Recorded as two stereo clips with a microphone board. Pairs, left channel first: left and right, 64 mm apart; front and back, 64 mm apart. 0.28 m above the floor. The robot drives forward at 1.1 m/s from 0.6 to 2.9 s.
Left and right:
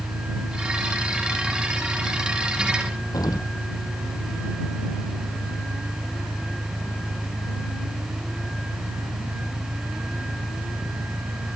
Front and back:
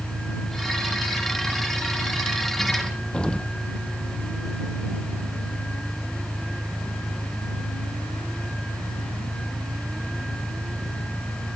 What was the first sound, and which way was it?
An engine running, 90° right.